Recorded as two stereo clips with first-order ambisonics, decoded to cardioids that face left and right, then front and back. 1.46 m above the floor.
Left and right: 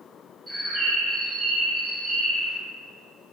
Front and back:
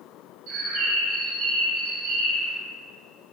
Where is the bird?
170° right, 1.2 m.